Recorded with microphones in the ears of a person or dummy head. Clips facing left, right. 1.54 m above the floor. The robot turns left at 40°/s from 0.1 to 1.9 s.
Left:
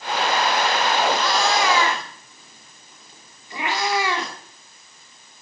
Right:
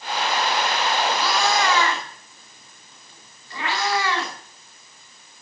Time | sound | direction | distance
1.1 | a cat meowing | 5° right (ahead or behind) | 2.5 m